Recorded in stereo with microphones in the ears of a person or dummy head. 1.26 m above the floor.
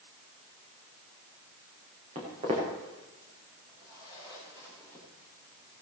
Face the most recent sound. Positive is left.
turn(degrees=-20)  # may be behind; listen again after turning